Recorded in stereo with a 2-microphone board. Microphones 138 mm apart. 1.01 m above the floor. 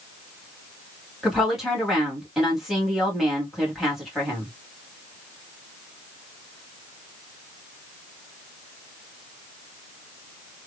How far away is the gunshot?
No gunshot in this recording.